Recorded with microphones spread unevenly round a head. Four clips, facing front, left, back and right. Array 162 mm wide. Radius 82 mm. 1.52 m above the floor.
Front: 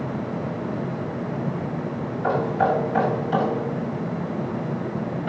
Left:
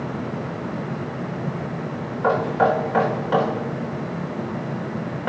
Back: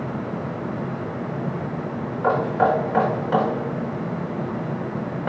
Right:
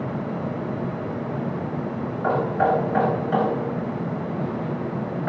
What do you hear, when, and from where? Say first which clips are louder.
2.2 s knocking: left 2 dB, back 2 dB; 135° left, 4.5 m